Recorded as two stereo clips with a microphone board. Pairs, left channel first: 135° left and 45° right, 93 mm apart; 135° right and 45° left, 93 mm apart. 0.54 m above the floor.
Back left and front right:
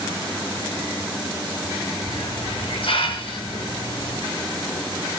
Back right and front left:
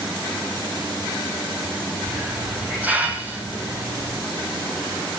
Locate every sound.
2.1 s a hiss: 120° left, 6.5 m